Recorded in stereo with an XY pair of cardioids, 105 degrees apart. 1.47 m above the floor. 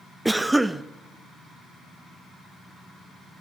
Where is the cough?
10° right, 0.5 m.